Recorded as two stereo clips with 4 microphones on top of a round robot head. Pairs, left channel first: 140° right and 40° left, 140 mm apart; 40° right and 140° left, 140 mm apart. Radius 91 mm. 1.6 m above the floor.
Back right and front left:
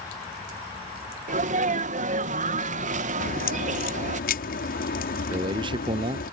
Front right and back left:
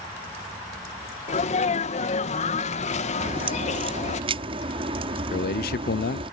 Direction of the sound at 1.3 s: 5° left.